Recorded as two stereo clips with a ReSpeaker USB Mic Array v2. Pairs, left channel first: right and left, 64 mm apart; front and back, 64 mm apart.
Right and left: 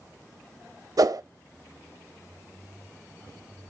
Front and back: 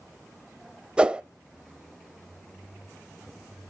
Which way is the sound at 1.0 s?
105° left.